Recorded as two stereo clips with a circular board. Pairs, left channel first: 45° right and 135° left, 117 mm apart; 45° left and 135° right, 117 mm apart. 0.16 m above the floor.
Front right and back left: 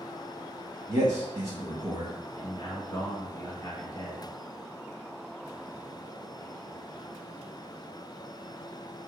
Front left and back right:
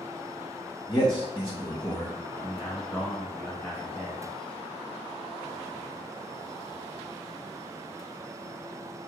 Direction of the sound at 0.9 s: 80° left.